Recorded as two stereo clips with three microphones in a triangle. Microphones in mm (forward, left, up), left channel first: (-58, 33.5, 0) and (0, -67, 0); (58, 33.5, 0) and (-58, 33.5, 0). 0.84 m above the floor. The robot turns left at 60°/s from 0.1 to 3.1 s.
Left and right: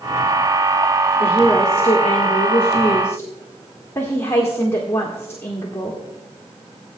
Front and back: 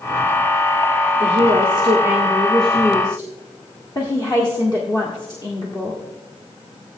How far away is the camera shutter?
No camera shutter in this recording.